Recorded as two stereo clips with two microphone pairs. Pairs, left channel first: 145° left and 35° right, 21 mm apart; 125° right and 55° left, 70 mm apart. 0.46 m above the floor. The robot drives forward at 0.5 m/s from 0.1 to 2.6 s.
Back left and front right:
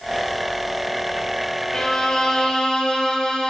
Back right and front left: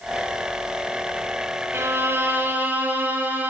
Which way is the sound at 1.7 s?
95° left.